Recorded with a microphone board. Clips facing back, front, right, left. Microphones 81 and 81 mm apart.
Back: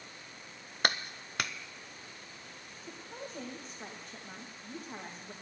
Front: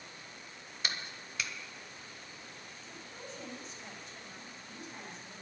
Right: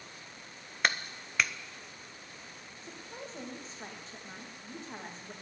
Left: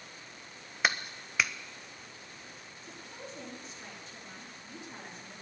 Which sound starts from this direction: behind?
A clap, at 0.8 s.